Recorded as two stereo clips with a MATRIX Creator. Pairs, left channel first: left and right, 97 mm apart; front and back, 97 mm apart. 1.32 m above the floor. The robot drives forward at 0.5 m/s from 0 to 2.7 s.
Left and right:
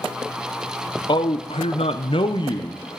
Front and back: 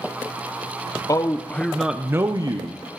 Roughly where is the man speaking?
Ahead left.